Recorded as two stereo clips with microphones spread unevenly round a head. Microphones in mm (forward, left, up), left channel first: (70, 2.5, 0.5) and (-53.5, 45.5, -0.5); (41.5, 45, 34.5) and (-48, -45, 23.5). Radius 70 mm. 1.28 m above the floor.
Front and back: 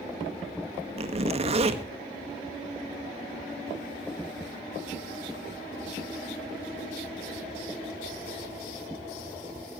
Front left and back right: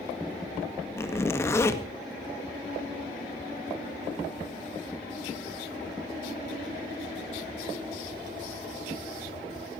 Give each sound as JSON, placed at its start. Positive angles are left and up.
{"t": 1.0, "sound": "a zipper", "azimuth_deg": 115, "distance_m": 1.7}